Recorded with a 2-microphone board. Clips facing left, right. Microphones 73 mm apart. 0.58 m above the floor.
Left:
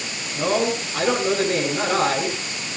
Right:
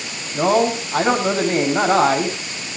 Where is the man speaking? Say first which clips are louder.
Right 5 dB; 50° right (ahead or behind), 6 m.